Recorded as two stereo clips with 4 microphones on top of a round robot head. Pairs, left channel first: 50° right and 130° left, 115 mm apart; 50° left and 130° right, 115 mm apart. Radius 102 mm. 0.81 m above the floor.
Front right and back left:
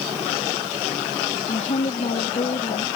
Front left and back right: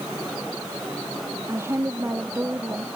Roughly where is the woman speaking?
Ahead right.